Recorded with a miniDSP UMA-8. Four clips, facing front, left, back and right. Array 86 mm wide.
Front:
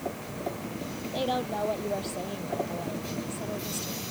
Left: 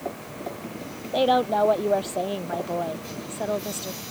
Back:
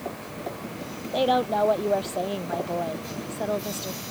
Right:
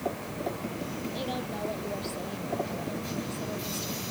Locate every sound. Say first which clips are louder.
1.1 s a woman speaking: left 18 dB, back 8 dB; 120° left; by 4.0 s 135° left